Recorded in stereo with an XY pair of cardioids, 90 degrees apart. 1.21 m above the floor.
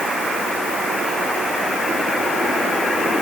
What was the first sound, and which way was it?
Only background noise.